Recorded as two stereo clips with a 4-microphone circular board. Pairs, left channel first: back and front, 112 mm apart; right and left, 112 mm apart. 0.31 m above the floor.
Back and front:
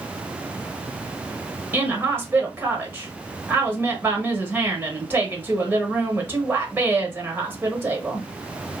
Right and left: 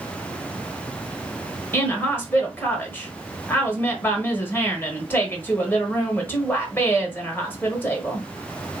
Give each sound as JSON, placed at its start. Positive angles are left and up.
{"t": 1.7, "sound": "a woman speaking", "azimuth_deg": -45, "distance_m": 0.9}